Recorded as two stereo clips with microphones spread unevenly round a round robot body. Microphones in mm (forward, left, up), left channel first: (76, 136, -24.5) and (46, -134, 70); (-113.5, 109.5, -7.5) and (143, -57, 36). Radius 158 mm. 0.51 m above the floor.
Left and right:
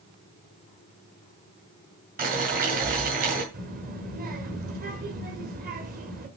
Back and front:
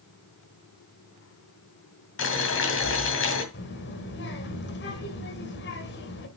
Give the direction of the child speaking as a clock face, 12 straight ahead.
5 o'clock.